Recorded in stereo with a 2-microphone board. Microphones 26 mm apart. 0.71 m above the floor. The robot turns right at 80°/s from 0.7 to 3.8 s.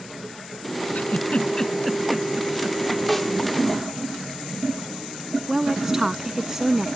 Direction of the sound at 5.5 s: 20° right (ahead or behind).